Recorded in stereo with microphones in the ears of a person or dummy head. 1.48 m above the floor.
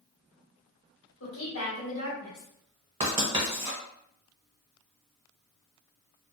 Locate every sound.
1.2 s a woman speaking: 70° left (ahead or behind), 1.3 m
3.0 s writing: 25° right (ahead or behind), 0.8 m